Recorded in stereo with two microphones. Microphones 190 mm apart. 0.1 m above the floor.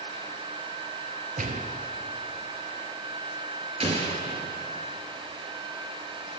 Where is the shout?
No shout in this recording.